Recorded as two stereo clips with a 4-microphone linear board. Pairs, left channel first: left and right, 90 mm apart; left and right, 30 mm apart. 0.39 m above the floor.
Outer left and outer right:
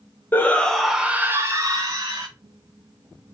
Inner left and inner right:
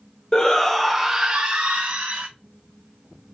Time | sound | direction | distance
0.3 | a shout | 20° left (ahead or behind) | 1.0 m